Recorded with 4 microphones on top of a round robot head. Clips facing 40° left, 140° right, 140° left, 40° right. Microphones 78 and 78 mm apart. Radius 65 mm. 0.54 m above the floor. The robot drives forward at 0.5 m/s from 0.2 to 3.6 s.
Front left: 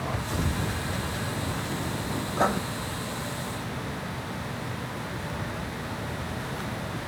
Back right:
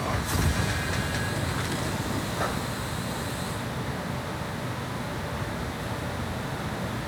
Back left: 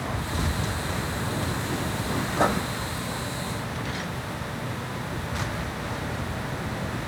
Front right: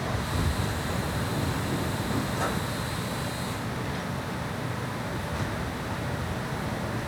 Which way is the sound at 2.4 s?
95° left.